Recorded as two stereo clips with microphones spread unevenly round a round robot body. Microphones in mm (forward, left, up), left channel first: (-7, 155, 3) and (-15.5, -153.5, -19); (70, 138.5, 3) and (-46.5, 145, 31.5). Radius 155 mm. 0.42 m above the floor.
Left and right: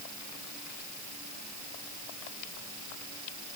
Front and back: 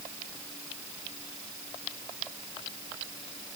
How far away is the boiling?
I don't hear boiling.